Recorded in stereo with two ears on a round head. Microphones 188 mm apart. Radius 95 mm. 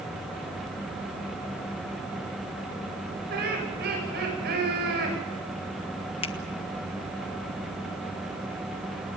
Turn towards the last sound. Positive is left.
turn(degrees=30)  # may be behind; listen again after turning